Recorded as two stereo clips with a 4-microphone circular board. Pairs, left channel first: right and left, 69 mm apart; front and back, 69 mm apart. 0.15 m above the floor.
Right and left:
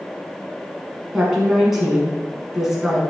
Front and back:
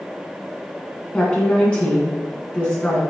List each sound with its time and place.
1.1 s a woman speaking: 15° left, 1.1 m